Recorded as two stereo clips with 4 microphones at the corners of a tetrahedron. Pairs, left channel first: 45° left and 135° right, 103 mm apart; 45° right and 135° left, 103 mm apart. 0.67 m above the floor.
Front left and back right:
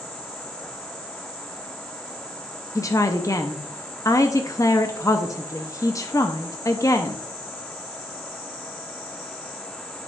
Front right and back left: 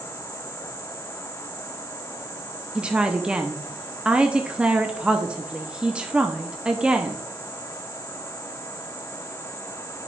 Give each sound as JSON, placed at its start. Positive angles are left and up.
{"t": 2.8, "sound": "a woman speaking", "azimuth_deg": 65, "distance_m": 0.6}